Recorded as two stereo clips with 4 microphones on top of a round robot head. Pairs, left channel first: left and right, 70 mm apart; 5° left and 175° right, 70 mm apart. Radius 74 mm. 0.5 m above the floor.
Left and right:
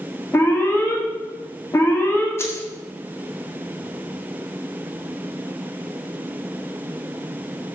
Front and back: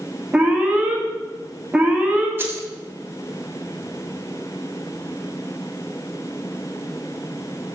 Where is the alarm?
120° left, 1.0 m.